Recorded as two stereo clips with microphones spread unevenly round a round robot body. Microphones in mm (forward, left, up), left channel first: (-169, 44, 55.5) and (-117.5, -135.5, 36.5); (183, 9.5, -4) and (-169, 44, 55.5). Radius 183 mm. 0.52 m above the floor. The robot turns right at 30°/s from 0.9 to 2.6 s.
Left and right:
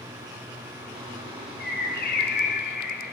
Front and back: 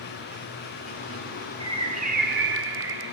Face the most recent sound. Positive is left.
turn(degrees=120)